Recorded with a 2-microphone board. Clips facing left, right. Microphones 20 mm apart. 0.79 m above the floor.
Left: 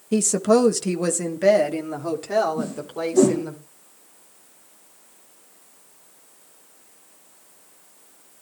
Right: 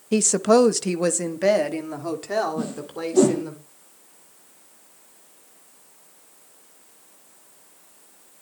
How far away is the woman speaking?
About 0.7 m.